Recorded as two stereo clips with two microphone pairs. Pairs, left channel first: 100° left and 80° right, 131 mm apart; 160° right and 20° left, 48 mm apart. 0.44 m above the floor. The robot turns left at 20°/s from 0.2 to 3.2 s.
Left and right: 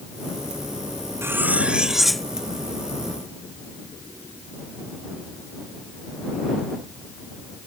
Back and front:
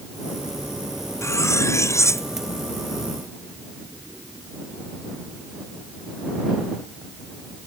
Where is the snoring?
I don't hear snoring.